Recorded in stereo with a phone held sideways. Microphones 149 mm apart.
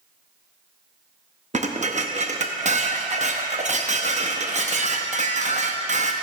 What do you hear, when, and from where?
1.5 s dishes clattering: 50° right (ahead or behind), 0.7 m